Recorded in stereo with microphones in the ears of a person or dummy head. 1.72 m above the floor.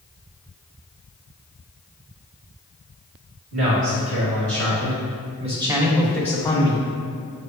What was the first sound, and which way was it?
A man speaking, 85° right.